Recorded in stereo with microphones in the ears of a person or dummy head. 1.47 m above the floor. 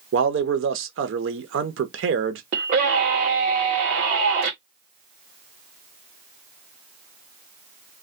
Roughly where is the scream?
Right.